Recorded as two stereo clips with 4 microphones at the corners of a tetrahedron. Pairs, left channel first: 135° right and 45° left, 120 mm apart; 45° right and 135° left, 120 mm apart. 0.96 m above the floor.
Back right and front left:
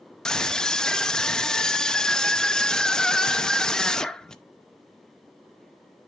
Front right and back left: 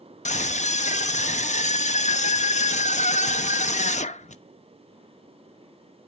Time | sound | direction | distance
0.2 | a scream | 50° right | 0.8 m